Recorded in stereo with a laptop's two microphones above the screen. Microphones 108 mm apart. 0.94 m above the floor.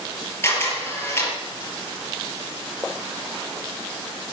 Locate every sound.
0.4 s a camera shutter: 25° left (ahead or behind), 5.5 m